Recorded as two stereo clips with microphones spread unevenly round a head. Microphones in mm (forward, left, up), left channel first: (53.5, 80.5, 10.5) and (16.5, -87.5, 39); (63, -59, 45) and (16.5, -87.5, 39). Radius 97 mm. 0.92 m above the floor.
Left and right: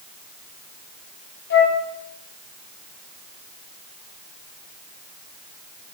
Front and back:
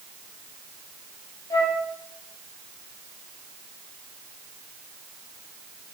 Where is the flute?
70° left, 1.6 m.